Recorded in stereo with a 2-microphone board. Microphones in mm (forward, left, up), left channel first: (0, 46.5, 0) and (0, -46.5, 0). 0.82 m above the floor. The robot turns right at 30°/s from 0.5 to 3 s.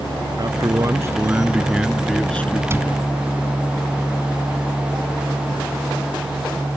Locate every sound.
0.4 s a man speaking: 45° right; by 2.6 s 20° left
2.7 s a cupboard door: 30° right (ahead or behind); by 3.0 s 20° right (ahead or behind)